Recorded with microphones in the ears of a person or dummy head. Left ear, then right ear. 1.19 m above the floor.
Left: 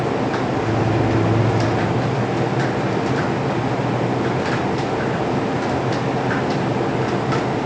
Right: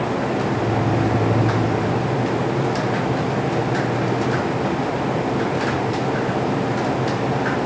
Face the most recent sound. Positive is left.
turn(degrees=20)  # may be behind; listen again after turning